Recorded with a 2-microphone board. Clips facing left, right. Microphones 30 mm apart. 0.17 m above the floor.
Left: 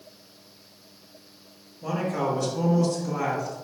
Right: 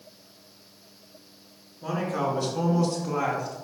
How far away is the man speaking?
About 2.5 m.